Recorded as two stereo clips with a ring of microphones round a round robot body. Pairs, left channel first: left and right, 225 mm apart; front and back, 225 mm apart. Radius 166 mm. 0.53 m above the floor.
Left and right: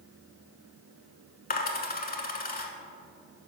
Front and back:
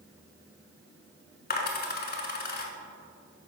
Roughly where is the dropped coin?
Ahead left.